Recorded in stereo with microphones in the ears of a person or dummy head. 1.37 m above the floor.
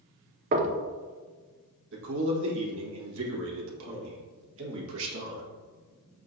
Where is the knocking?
40° right (ahead or behind), 0.6 m.